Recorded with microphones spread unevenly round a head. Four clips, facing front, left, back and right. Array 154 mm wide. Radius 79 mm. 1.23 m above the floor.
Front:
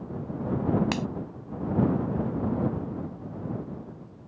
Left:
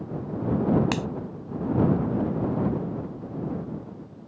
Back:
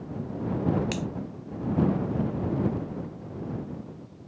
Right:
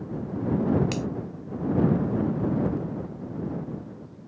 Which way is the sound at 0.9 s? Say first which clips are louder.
Left 2 dB, front 2 dB; 65° left.